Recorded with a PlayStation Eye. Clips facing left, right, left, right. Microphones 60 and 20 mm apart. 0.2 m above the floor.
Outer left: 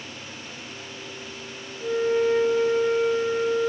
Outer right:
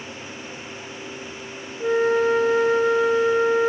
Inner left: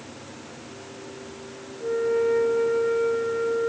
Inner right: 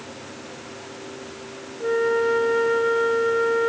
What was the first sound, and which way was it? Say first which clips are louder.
A flute: outer right 3 dB, inner right 2 dB; 70° right (ahead or behind).